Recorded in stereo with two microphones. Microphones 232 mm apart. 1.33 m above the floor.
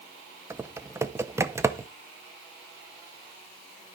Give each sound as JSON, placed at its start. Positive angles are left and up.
{"t": 0.5, "sound": "typing on a keyboard", "side_deg": -10, "distance_m": 0.7}